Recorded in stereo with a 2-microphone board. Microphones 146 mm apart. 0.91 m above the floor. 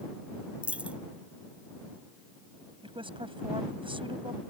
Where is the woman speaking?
35° right (ahead or behind).